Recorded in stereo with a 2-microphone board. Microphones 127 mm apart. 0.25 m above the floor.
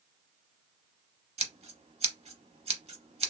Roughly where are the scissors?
Right.